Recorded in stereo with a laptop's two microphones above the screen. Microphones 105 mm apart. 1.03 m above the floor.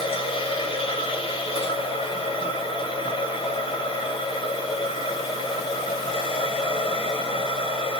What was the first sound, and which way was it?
A machine running, 60° left (ahead or behind).